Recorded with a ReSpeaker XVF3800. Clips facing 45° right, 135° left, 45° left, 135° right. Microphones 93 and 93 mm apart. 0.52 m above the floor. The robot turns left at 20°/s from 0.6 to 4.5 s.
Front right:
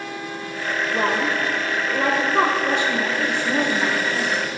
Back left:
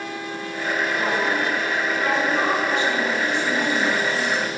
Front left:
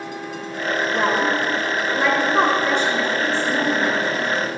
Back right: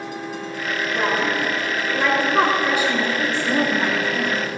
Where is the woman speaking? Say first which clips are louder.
Front right 3 dB, front left 1 dB; 15° right, 1.6 m; by 4.5 s 90° right, 1.6 m.